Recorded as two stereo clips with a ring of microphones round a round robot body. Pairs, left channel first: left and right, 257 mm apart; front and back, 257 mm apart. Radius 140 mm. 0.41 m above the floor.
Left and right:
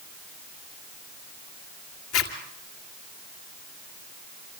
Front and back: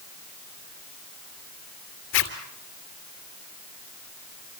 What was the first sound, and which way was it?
A zipper, 45° left.